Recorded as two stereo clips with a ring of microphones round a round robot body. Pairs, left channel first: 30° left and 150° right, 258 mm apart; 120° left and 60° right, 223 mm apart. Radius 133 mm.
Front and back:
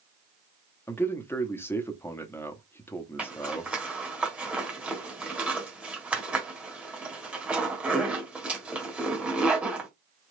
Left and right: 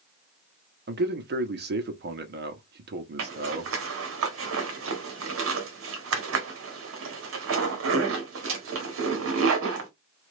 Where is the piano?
No piano in this recording.